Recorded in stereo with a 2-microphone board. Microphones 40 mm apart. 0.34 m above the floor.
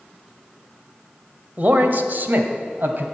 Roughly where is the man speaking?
Right.